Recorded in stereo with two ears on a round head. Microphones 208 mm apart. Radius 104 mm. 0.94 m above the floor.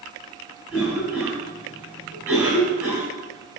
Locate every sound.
0.7 s a cough: 5° right (ahead or behind), 6 m